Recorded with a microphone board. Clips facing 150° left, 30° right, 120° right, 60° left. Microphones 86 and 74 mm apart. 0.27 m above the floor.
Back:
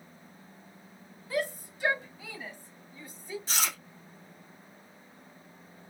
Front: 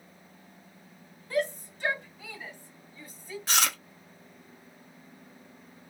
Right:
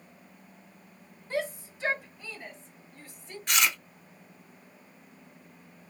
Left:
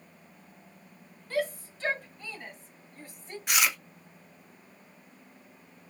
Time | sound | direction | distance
1.3 | a shout | 140° right | 1.6 m
3.5 | chewing | 20° right | 0.9 m